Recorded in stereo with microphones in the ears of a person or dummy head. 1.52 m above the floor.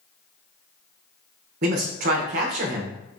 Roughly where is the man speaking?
Right.